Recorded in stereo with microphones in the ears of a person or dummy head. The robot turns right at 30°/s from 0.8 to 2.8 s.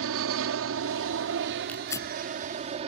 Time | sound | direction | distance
0.0 | an aircraft | 100° right | ?
1.7 | tearing paper | 10° left (ahead or behind) | ?